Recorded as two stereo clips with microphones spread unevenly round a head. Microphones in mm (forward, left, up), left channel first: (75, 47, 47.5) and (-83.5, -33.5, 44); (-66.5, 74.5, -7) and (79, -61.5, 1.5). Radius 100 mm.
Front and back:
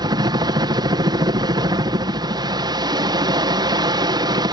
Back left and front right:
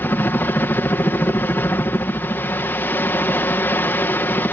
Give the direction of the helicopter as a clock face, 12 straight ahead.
5 o'clock.